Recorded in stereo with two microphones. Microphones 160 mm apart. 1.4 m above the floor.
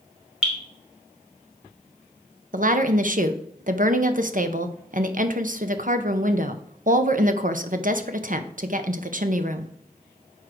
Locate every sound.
0.4 s dripping: 5° right (ahead or behind), 2.5 m
2.5 s a woman speaking: 55° right (ahead or behind), 0.8 m